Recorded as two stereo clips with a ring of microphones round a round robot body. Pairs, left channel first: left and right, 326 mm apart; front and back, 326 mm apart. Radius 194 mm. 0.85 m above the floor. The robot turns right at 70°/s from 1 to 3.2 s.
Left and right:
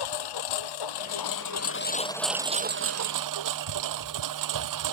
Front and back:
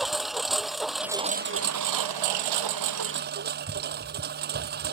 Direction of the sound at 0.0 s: 90° left.